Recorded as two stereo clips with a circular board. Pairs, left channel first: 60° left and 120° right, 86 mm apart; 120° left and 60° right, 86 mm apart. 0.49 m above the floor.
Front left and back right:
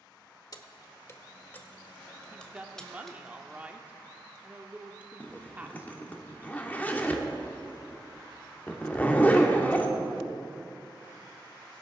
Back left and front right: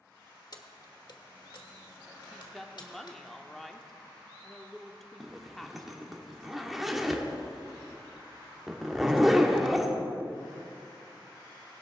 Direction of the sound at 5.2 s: 25° left.